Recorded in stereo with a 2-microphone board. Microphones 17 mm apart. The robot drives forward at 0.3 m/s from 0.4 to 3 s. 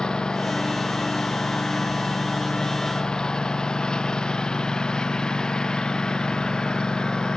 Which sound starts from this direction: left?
A lawn mower, at 0.0 s.